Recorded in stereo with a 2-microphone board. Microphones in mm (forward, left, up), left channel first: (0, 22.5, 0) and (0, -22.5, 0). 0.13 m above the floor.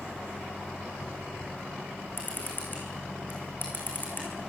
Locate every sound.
2.2 s a camera shutter: 40° left (ahead or behind), 7.5 m